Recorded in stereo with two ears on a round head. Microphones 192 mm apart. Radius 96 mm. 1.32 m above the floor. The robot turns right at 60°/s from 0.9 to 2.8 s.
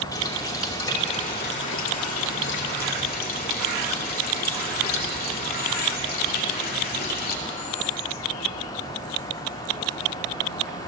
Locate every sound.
0.1 s a running tap: 20° left, 2.5 m; by 7.4 s 130° left, 2.5 m